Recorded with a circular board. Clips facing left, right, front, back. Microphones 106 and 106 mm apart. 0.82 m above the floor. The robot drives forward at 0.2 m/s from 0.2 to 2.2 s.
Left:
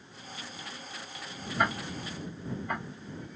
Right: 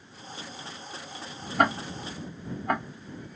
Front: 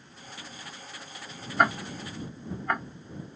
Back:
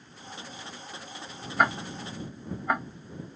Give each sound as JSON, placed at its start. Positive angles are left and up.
{"t": 1.6, "sound": "ticking", "azimuth_deg": -90, "distance_m": 0.7}